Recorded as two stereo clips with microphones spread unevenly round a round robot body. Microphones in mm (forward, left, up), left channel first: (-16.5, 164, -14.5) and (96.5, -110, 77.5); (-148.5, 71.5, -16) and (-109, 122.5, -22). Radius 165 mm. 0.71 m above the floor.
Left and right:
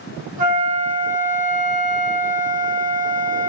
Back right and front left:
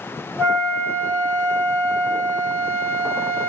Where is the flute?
5° left, 1.4 m.